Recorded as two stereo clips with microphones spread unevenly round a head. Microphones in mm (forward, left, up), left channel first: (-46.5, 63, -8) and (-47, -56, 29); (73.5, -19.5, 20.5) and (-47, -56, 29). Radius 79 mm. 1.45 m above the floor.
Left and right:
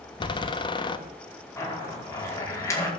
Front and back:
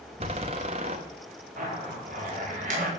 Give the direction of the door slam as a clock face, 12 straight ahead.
7 o'clock.